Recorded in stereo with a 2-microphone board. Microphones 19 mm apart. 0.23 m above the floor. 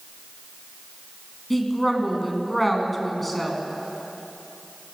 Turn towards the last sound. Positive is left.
turn(degrees=10)  # may be behind; listen again after turning